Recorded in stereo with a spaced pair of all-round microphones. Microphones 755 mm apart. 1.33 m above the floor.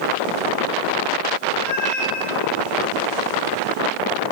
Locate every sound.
1.6 s a cat meowing: 25° left (ahead or behind), 8.5 m